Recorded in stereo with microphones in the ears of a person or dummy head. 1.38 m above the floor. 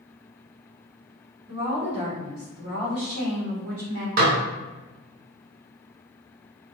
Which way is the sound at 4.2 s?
55° right (ahead or behind).